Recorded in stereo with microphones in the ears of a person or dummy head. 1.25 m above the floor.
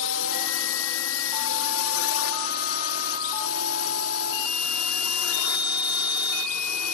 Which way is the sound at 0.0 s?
65° left (ahead or behind).